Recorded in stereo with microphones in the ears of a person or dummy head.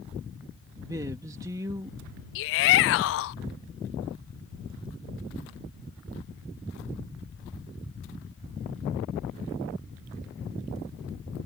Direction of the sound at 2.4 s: 55° left (ahead or behind).